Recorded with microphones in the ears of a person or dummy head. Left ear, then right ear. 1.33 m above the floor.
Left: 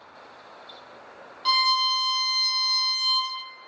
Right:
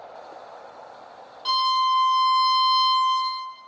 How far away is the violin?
About 0.6 m.